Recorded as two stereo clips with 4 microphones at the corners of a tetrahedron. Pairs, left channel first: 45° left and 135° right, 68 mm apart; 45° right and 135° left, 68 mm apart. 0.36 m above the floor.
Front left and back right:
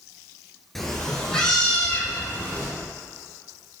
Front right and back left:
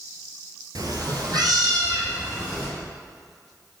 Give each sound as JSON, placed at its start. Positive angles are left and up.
{"t": 0.8, "sound": "a cat meowing", "azimuth_deg": 130, "distance_m": 0.7}